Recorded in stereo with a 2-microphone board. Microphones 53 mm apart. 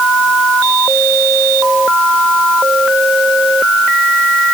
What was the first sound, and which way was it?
Only background noise.